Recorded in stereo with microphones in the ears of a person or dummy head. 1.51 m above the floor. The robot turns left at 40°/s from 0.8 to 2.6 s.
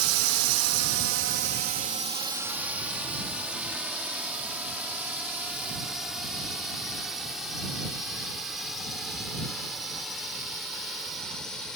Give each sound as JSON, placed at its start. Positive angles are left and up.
{"t": 0.0, "sound": "a drone", "side_deg": -75}